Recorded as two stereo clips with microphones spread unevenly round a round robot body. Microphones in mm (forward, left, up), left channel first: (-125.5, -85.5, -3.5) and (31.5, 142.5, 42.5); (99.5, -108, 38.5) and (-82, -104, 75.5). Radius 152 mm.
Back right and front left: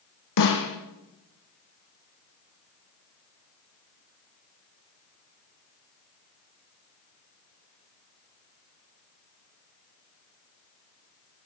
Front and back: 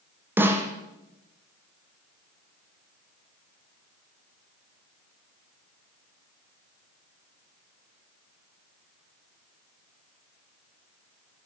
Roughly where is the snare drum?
Right.